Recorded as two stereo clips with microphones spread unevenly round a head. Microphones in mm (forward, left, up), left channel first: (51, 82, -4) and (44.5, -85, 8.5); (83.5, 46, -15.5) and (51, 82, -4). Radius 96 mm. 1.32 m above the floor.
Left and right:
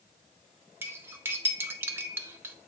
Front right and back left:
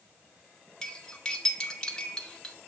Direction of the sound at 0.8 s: 135° right.